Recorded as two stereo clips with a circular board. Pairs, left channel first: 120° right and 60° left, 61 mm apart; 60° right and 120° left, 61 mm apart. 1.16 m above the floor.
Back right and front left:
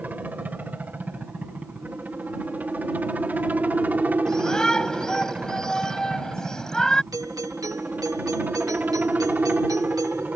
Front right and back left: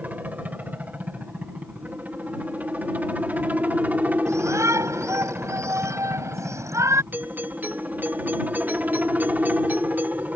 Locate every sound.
0.0 s a helicopter: 85° left
4.3 s a shout: 160° left
7.1 s a doorbell: 60° left